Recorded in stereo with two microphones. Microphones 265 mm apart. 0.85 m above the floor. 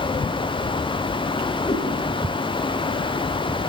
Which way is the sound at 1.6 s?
20° left (ahead or behind).